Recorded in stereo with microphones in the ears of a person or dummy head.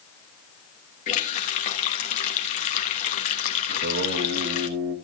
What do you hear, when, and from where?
1.1 s a running tap: 40° left (ahead or behind), 1.3 m
3.7 s singing: 45° right (ahead or behind), 1.3 m